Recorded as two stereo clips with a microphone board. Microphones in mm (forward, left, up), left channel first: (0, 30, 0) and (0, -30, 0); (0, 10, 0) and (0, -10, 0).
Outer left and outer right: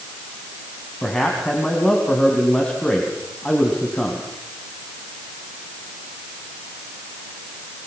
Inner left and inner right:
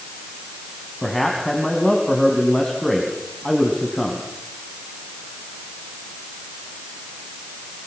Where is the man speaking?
15° left (ahead or behind), 3.5 m.